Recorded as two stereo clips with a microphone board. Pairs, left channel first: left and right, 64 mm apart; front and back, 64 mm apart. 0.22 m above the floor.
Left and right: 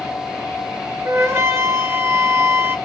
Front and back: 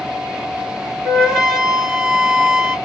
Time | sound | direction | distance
1.0 | a flute | 105° right | 1.4 m